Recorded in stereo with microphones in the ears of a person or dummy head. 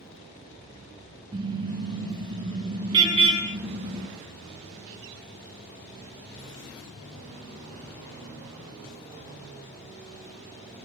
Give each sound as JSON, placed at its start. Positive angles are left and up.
{"t": 1.3, "sound": "a car horn", "side_deg": -25, "distance_m": 7.0}